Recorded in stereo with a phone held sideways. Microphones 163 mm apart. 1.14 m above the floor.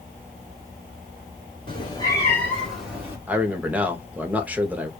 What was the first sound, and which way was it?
A cat meowing, 30° left (ahead or behind).